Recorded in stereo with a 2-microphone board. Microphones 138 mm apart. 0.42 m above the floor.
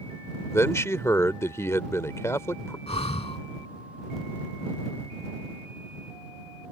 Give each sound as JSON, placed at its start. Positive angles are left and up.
{"t": 0.5, "sound": "a man speaking", "side_deg": 20}
{"t": 2.9, "sound": "breathing", "side_deg": 50}